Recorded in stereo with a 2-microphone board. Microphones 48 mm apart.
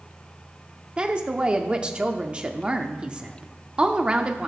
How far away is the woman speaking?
About 0.7 m.